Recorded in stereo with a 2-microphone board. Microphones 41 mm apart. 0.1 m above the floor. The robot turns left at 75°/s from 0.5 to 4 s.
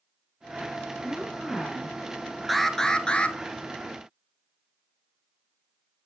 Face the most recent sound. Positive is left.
turn(degrees=65)